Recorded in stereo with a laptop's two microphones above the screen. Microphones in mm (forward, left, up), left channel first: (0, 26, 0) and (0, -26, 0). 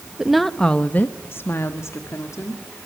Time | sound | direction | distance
0.2 | a woman speaking | 10° right (ahead or behind) | 1.1 m